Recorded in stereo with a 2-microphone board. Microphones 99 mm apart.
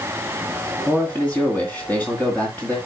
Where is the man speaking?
15° left (ahead or behind), 2 m.